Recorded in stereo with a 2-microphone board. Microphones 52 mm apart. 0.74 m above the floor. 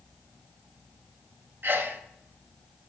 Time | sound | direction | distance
1.6 | a sneeze | 40° right (ahead or behind) | 0.7 m